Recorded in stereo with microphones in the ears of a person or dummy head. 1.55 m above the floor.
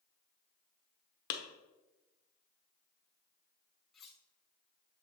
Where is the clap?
55° left (ahead or behind), 1.0 m.